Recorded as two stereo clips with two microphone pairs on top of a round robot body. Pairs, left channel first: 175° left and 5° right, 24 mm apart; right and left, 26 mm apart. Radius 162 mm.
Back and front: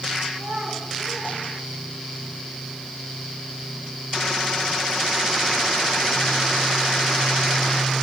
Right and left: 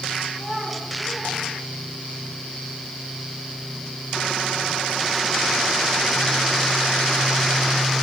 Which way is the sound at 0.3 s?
5° right.